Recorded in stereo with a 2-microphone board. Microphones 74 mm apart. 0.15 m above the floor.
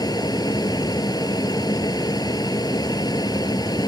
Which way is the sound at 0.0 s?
60° left (ahead or behind).